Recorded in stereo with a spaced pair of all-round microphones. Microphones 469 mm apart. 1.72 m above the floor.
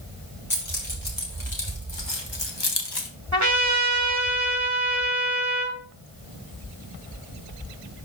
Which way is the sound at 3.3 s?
35° right (ahead or behind).